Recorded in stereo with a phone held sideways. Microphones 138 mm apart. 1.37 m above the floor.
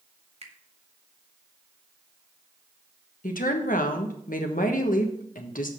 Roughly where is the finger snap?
Right.